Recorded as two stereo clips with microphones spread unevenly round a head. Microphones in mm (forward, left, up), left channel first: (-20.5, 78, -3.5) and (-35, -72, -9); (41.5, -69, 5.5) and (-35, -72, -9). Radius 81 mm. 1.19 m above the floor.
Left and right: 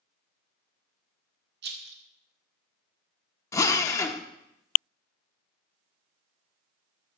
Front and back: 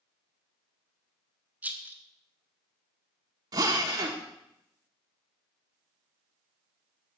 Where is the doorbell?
I don't hear a doorbell.